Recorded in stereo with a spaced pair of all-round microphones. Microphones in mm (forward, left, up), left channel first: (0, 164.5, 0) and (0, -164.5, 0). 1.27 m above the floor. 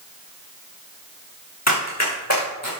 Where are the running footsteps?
55° left (ahead or behind), 5 m; by 2.7 s 45° left (ahead or behind), 6 m.